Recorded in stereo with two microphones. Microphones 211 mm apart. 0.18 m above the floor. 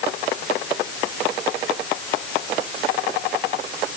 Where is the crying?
I don't hear crying.